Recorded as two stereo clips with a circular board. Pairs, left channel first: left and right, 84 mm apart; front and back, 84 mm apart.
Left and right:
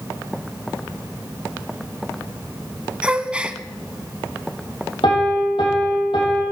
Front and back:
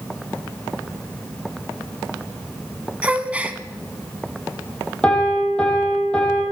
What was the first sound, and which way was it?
A gasp, 140° right.